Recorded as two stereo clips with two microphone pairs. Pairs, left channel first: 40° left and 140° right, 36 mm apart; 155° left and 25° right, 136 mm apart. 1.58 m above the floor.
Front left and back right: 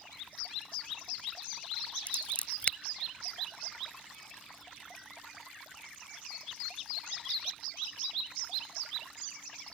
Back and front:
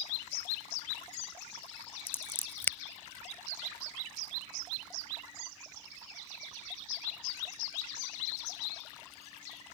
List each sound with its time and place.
2.1 s scissors: 80° left